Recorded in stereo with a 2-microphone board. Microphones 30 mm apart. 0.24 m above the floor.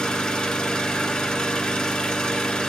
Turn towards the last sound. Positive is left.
turn(degrees=25)  # may be behind; listen again after turning